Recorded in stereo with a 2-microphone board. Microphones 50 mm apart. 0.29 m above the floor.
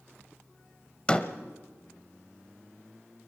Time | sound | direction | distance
1.1 | a door slam | 20° left (ahead or behind) | 1.1 m